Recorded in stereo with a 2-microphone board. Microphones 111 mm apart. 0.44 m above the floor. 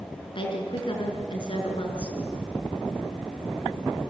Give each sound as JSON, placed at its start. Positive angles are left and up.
{"t": 0.3, "sound": "a woman speaking", "side_deg": 50, "distance_m": 5.5}